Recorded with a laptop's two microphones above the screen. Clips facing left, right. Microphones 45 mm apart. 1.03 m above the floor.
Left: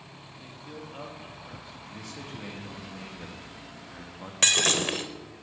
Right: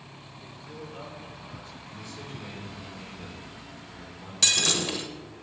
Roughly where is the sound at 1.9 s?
Left.